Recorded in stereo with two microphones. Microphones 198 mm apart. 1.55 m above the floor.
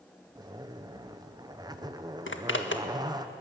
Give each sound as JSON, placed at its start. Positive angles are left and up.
{"t": 0.3, "sound": "a zipper", "side_deg": -20, "distance_m": 1.1}
{"t": 2.3, "sound": "a zipper", "side_deg": 75, "distance_m": 1.6}